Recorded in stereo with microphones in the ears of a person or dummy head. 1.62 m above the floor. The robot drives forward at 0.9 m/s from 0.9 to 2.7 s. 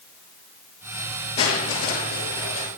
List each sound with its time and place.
1.4 s crushing: 30° left (ahead or behind), 7.5 m; by 2.7 s 25° left (ahead or behind), 8.5 m